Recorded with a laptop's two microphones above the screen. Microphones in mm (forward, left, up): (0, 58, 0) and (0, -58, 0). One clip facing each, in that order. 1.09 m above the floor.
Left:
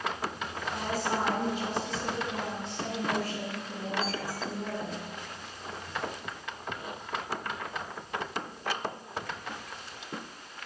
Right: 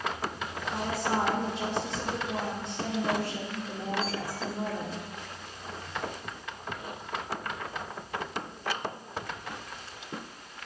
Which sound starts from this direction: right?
A woman speaking, at 0.7 s.